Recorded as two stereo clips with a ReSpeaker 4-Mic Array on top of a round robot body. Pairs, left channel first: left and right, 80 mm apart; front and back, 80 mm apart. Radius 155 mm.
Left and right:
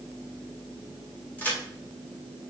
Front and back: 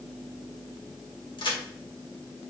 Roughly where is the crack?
Ahead.